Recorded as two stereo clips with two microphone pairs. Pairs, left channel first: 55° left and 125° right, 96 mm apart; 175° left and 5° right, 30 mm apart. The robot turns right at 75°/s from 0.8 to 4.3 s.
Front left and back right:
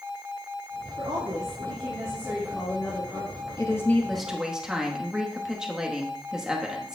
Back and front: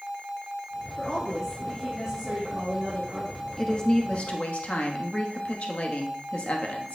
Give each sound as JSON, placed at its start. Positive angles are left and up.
{"t": 1.0, "sound": "a woman speaking", "azimuth_deg": -155, "distance_m": 1.8}
{"t": 3.6, "sound": "a woman speaking", "azimuth_deg": 95, "distance_m": 1.1}